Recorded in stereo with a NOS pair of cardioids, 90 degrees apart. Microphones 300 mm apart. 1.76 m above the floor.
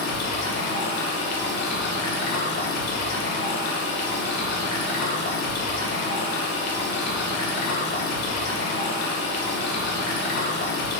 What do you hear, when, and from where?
0.0 s running water: 65° left, 0.9 m